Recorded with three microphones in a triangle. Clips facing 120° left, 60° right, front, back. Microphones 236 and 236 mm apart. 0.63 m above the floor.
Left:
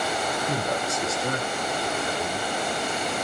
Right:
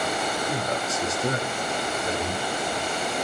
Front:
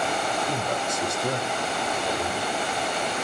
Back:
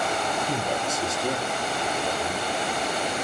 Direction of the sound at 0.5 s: 115° left.